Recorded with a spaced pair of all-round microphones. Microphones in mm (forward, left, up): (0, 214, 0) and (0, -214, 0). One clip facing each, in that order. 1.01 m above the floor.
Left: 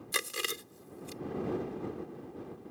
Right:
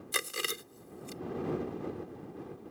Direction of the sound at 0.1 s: Centre (ahead or behind).